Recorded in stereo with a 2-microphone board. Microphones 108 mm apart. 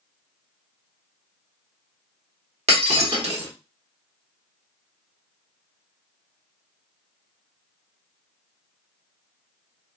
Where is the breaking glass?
80° right, 1.1 m.